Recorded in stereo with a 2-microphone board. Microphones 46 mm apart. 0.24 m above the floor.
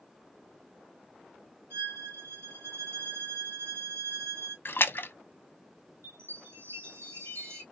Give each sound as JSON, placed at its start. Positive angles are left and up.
{"t": 1.7, "sound": "a violin", "side_deg": -60, "distance_m": 3.0}
{"t": 4.7, "sound": "a splash", "side_deg": 55, "distance_m": 0.6}
{"t": 6.0, "sound": "a chime", "side_deg": -60, "distance_m": 2.0}